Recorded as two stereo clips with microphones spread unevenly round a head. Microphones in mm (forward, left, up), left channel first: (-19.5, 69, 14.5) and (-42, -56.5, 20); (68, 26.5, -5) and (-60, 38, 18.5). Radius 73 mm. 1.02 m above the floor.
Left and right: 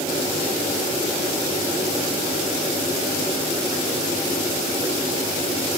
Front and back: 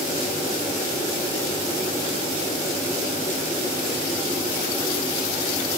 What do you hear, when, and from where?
Only background noise.